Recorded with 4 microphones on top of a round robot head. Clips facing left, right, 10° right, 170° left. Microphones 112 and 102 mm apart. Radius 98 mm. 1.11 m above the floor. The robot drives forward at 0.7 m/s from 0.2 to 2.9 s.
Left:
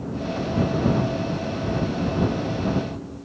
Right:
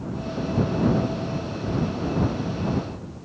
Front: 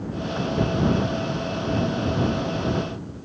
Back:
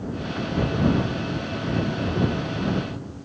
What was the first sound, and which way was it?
Only background noise.